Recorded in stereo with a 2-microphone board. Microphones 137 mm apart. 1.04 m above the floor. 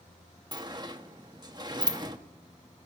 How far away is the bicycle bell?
No bicycle bell in this recording.